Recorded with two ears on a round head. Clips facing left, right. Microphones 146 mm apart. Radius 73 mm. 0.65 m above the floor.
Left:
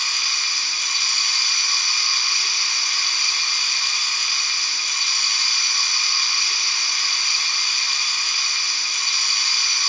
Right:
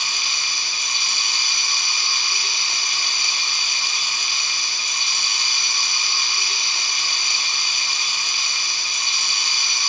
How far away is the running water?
About 0.8 m.